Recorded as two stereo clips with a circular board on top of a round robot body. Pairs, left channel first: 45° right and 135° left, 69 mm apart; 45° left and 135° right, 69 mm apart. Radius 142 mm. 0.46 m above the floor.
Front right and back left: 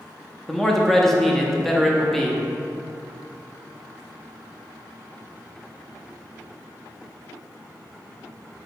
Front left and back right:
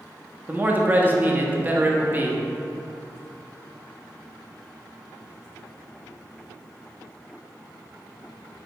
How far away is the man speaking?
About 0.7 m.